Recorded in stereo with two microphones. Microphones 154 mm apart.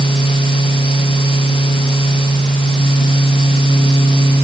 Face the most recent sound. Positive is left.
No sound to turn to.